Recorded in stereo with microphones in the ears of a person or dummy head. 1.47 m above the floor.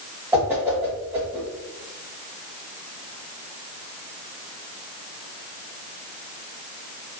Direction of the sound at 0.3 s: 10° right (ahead or behind).